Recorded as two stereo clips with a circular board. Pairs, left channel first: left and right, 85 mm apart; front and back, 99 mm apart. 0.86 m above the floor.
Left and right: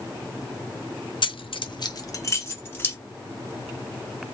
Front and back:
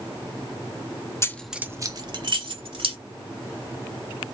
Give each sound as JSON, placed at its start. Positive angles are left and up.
{"t": 1.2, "sound": "keys jangling", "azimuth_deg": 60, "distance_m": 0.6}